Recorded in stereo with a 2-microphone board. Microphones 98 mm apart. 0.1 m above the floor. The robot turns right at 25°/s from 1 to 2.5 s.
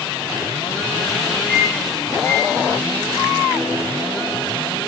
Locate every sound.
1.5 s a microwave: 15° left (ahead or behind), 5 m; by 4.8 s 40° left (ahead or behind), 5 m